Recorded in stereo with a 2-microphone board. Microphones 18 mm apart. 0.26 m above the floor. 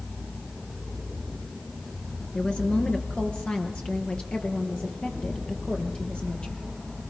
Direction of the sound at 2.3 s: 70° left (ahead or behind).